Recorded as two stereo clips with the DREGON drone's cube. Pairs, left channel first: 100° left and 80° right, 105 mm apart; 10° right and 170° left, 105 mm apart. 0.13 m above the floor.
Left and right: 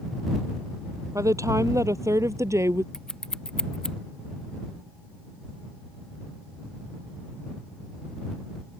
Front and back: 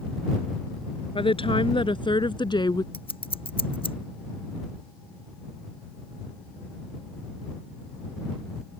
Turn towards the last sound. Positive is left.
turn(degrees=15)